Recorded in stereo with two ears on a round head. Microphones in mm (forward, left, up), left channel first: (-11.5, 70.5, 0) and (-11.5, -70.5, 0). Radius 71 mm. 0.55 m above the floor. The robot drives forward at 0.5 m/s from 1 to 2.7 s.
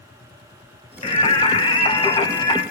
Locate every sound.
1.0 s singing: 35° left (ahead or behind), 2 m; by 2.6 s 25° left (ahead or behind), 3 m